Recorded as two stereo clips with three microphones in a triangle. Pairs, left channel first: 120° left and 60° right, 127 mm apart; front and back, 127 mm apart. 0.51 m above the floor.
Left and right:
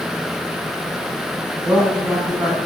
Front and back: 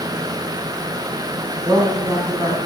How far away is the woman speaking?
About 4.5 m.